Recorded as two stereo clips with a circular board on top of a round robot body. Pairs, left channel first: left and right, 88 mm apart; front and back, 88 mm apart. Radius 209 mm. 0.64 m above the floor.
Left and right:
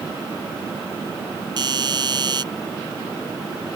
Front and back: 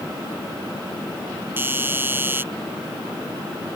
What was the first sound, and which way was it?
A doorbell, 115° right.